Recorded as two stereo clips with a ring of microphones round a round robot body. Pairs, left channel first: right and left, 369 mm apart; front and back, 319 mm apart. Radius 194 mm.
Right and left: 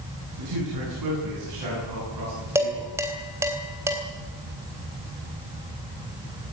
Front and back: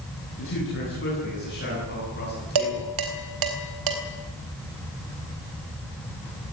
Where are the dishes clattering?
175° left, 3.5 m.